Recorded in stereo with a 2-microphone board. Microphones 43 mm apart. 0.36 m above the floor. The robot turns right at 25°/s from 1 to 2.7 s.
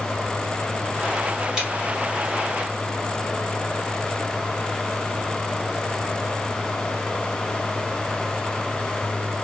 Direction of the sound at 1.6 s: 15° right (ahead or behind).